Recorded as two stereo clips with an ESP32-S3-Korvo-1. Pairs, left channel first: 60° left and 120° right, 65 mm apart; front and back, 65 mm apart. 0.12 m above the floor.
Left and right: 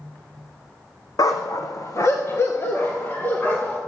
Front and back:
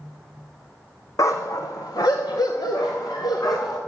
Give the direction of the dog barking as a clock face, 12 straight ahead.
11 o'clock.